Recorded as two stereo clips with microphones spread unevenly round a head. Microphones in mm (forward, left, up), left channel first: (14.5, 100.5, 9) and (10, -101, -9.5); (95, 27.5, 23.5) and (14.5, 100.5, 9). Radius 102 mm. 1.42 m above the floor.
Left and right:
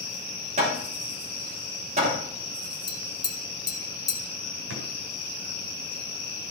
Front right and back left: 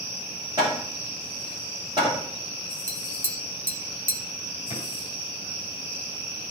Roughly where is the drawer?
Right.